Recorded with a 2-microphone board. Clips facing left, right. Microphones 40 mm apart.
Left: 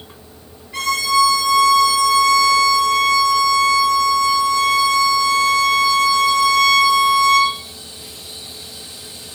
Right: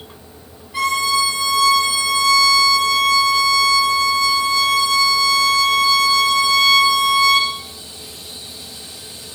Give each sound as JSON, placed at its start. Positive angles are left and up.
{"t": 0.7, "sound": "a violin", "side_deg": 75, "distance_m": 7.0}